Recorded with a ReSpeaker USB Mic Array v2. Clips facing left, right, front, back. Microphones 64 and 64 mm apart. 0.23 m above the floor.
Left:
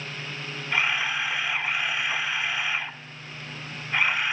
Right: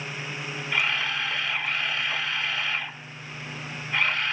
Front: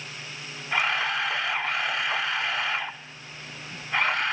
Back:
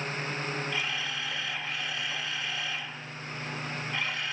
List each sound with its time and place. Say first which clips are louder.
0.7 s a camera shutter: left 1 dB, front 8 dB; 15° left, 0.5 m